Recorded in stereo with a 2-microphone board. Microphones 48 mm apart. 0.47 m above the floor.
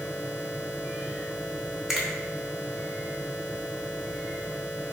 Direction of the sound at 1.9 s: 5° right (ahead or behind).